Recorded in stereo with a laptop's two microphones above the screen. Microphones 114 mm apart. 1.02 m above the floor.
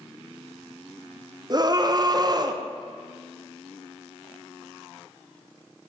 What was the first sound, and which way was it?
A scream, 35° right (ahead or behind).